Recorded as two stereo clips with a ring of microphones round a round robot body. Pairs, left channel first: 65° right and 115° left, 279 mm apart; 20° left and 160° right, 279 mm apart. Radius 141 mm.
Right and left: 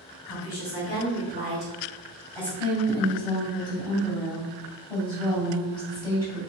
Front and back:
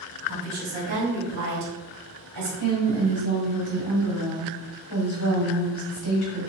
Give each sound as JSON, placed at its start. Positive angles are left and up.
{"t": 0.3, "sound": "a woman speaking", "azimuth_deg": -95, "distance_m": 1.8}
{"t": 2.6, "sound": "a woman speaking", "azimuth_deg": 15, "distance_m": 1.7}